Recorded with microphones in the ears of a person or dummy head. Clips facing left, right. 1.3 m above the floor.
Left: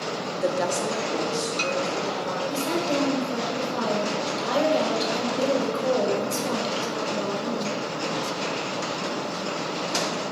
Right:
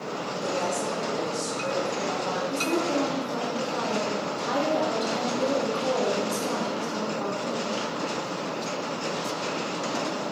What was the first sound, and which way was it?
A woman speaking, 70° left (ahead or behind).